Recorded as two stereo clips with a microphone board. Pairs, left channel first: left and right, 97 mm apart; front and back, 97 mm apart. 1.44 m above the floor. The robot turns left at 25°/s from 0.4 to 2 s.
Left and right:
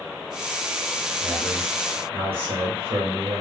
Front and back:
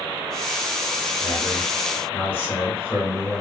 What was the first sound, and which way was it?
A man speaking, 45° right.